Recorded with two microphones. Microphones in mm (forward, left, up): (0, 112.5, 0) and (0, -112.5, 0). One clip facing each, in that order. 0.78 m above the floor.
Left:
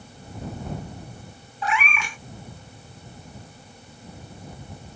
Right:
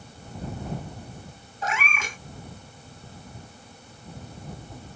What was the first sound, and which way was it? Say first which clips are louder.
A cat meowing: left 3 dB; 45° right (ahead or behind).